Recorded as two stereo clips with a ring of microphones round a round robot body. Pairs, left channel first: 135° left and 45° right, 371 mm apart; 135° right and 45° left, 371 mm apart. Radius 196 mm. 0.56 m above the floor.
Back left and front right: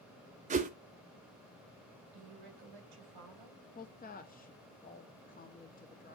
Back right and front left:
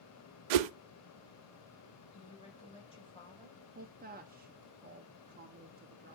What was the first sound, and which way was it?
A whoosh, 25° left.